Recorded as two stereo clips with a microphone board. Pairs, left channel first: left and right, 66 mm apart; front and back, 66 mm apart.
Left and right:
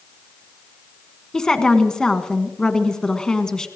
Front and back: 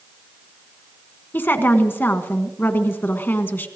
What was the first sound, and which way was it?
A woman speaking, 20° left.